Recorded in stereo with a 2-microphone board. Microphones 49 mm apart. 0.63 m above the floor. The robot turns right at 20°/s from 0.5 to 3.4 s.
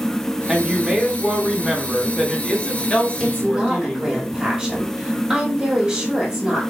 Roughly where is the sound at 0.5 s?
Ahead.